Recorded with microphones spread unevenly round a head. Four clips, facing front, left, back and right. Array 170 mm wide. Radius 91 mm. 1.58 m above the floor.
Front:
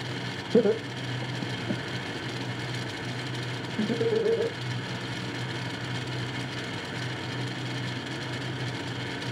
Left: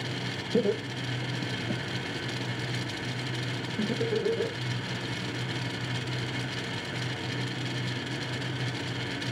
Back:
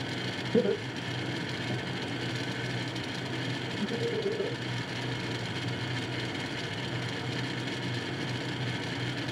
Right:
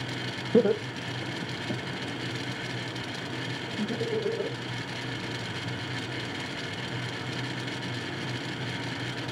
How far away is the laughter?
About 0.8 m.